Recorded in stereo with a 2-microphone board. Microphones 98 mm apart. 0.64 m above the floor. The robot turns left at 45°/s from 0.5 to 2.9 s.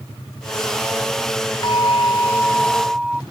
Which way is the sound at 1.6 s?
50° left.